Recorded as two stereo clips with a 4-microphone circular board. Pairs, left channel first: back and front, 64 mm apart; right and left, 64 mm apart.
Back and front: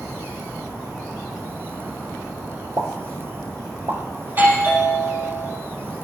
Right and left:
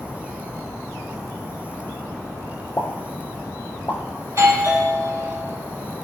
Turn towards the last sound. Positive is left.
turn(degrees=55)